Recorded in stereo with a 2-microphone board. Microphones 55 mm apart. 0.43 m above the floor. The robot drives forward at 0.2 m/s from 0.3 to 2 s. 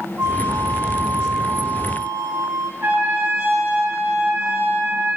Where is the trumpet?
70° right (ahead or behind), 3.5 m.